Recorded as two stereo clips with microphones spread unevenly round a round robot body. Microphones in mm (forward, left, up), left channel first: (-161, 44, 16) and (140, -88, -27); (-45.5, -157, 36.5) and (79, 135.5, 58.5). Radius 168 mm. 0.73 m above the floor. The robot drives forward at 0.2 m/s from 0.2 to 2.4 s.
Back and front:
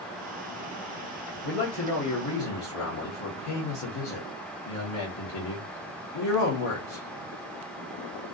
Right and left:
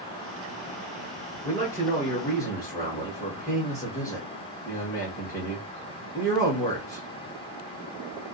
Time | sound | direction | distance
1.4 | a man speaking | 175° left | 0.9 m